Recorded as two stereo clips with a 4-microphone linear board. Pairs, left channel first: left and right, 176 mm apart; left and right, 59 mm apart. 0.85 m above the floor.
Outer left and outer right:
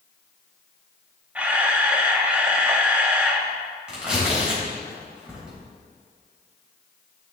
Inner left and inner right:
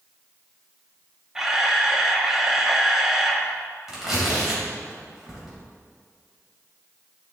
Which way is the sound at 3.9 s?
5° right (ahead or behind).